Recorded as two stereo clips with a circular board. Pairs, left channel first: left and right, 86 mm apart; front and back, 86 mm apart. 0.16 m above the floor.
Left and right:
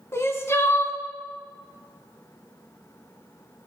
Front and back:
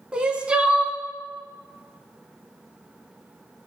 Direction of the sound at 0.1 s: 115° left.